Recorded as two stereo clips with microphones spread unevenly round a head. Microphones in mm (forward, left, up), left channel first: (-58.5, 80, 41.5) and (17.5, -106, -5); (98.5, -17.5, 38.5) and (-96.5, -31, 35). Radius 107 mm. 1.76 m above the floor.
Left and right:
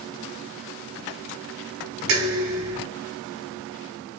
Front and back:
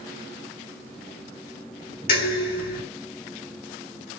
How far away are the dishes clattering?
About 6 m.